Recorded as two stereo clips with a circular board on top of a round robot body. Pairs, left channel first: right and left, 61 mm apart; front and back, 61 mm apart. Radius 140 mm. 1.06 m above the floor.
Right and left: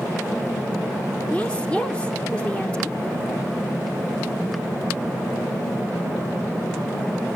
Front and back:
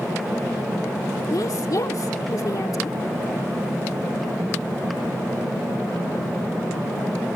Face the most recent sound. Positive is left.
turn(degrees=-20)